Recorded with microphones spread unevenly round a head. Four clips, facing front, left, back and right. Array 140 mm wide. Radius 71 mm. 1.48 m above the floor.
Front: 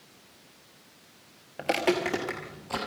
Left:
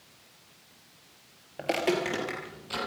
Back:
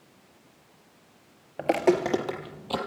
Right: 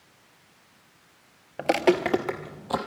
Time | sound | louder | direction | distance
1.6 | footsteps | right 6 dB, back 4 dB | 125° right | 1.5 m